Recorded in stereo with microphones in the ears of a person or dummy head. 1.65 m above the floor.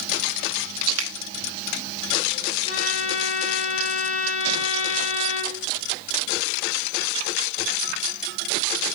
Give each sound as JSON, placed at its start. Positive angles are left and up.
{"t": 1.0, "sound": "a finger snap", "side_deg": -85, "distance_m": 2.0}
{"t": 2.6, "sound": "a violin", "side_deg": 40, "distance_m": 8.0}